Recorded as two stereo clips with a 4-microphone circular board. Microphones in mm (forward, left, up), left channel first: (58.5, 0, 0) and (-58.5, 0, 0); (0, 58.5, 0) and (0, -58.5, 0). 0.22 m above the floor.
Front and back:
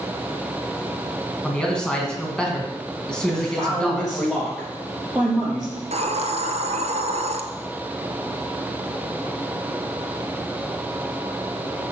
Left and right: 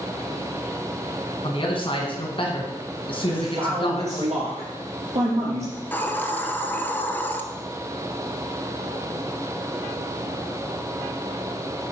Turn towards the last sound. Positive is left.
turn(degrees=165)